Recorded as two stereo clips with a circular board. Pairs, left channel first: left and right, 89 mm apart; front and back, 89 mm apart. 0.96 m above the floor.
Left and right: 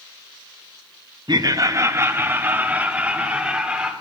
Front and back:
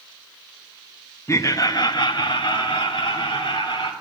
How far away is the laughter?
About 0.8 m.